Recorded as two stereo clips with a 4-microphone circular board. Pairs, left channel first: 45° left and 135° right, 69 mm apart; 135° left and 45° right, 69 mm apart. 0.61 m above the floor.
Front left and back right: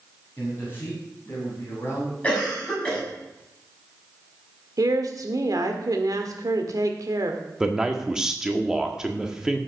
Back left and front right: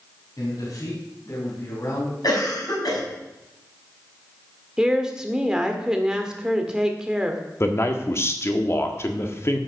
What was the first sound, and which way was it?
A man speaking, 105° left.